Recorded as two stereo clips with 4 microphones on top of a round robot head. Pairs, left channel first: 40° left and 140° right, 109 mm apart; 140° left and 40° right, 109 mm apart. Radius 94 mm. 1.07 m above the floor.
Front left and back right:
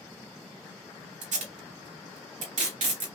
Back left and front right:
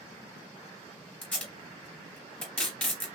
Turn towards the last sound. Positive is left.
turn(degrees=-145)